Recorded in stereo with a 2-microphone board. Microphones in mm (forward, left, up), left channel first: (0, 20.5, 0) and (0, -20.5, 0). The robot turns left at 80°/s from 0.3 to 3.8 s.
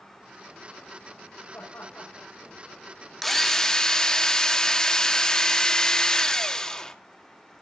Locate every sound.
1.5 s laughter: 85° left, 5.5 m; by 2.3 s 30° left (ahead or behind), 5.5 m
3.2 s a drill: 5° left (ahead or behind), 1.0 m; by 7.0 s 15° left (ahead or behind), 1.0 m